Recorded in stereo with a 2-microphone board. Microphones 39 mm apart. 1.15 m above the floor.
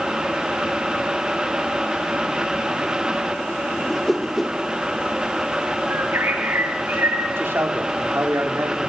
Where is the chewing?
No chewing in this recording.